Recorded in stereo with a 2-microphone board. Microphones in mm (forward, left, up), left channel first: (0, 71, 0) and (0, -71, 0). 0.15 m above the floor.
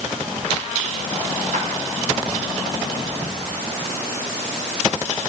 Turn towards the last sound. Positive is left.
turn(degrees=-65)  # may be behind; listen again after turning